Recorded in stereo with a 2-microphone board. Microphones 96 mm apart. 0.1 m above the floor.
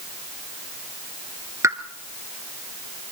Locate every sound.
1.6 s a pop: 30° right (ahead or behind), 1.5 m